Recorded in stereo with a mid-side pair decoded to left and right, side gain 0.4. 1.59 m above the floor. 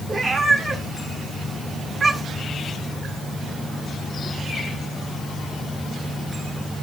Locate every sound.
0.1 s a cat meowing: 40° right, 4 m